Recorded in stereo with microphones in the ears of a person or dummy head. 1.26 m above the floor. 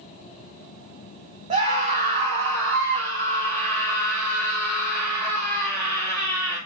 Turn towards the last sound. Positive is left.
turn(degrees=-75)  # may be behind; listen again after turning